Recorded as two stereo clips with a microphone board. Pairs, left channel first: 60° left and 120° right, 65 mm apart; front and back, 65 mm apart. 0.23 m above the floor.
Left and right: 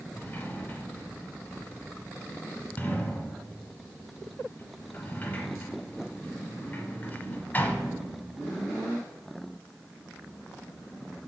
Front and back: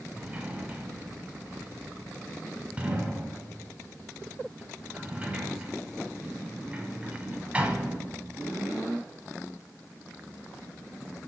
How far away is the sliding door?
About 0.9 m.